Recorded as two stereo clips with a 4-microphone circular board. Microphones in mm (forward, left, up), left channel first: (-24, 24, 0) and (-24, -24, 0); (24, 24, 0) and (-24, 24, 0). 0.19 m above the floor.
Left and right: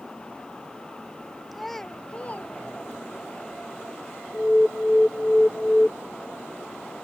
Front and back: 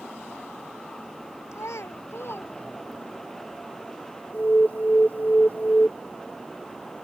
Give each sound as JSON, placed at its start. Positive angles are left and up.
{"t": 1.5, "sound": "a child speaking", "azimuth_deg": -5}
{"t": 4.3, "sound": "an alarm", "azimuth_deg": 30}